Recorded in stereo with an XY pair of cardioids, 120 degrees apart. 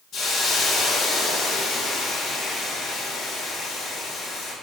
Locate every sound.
0.1 s a hiss: 55° left, 1.6 m